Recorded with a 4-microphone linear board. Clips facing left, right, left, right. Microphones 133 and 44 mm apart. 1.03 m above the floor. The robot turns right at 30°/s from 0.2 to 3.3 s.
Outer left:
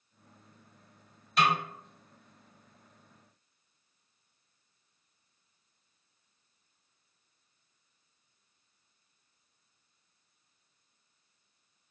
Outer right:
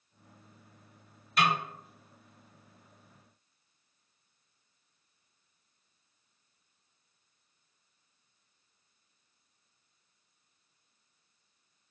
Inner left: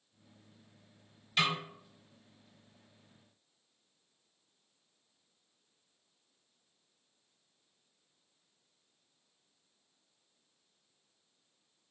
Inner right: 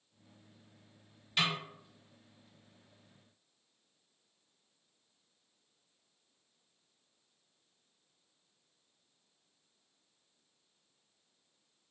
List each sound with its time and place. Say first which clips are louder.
1.4 s a snare drum: outer left 1 dB, inner left 2 dB; centre (ahead or behind), 1.4 m; by 1.6 s 5° right (ahead or behind), 1.4 m